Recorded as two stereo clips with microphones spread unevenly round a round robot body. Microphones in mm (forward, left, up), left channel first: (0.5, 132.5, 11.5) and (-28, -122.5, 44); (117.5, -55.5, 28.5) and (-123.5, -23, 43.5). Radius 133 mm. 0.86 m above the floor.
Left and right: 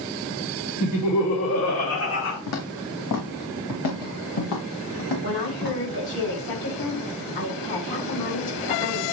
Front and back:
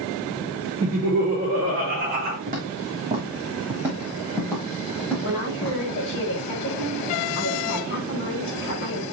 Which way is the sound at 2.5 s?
115° left.